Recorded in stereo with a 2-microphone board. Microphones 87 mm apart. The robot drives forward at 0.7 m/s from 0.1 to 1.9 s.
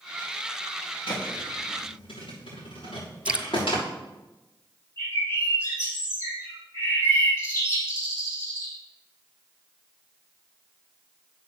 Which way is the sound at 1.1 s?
85° left.